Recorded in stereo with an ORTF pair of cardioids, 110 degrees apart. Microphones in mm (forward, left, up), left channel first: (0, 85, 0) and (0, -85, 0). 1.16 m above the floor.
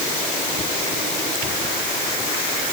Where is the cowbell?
No cowbell in this recording.